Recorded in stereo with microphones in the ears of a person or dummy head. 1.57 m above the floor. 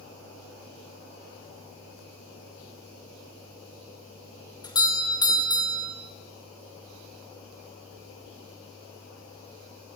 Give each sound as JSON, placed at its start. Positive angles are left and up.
{"t": 4.6, "sound": "a doorbell", "side_deg": 20, "distance_m": 2.5}